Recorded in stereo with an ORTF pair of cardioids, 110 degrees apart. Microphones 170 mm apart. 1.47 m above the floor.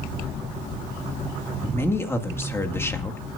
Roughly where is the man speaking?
Ahead.